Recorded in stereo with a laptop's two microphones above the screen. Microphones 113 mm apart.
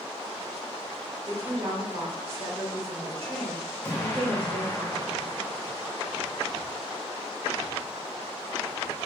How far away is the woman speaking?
About 1.4 m.